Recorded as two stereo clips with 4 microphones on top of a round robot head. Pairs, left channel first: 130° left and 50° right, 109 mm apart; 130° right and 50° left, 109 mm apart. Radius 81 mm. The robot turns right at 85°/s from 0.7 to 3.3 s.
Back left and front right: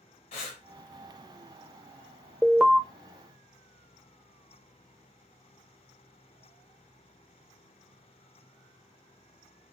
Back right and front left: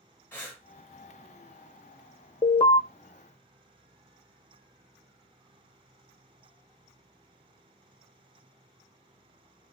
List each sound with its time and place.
0.3 s breathing: 160° left, 0.6 m
2.4 s an alarm: 150° right, 0.6 m; by 2.8 s 120° right, 0.6 m